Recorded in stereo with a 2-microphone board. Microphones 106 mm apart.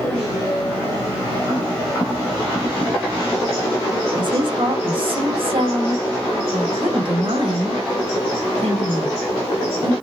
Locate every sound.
4.2 s a woman speaking: 45° right (ahead or behind), 1.3 m; by 9.9 s 70° right (ahead or behind), 4.5 m